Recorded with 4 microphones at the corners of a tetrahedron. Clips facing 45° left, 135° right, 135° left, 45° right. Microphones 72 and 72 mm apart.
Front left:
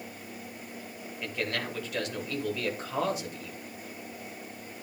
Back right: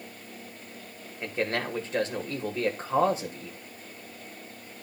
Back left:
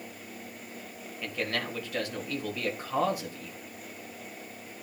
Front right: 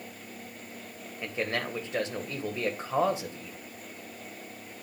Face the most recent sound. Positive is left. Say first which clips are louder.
# back right 4 dB, front right 1 dB
turn(degrees=-100)